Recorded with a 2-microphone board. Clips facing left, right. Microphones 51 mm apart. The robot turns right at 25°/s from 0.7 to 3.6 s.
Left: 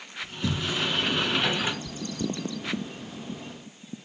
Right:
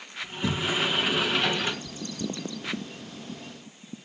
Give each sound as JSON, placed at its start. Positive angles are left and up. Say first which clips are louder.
{"t": 0.2, "sound": "a sliding door", "louder": "right 2 dB", "side_deg": -15, "distance_m": 2.0}
{"t": 1.9, "sound": "chewing", "louder": "left 2 dB", "side_deg": 55, "distance_m": 1.1}